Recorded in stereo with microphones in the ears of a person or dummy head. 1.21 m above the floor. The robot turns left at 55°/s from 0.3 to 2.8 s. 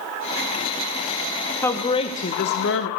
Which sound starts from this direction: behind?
A woman speaking, at 1.6 s.